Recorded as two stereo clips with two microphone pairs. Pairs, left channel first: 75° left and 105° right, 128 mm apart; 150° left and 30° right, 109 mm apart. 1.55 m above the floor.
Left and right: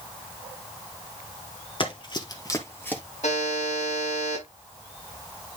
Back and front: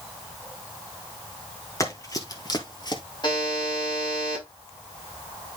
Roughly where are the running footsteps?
Left.